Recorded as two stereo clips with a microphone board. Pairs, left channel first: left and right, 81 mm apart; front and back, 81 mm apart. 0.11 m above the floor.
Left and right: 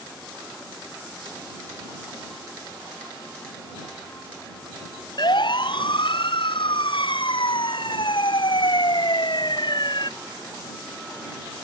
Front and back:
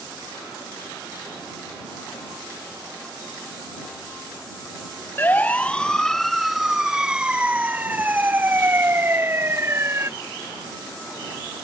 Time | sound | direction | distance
5.2 | a siren | 65° left | ?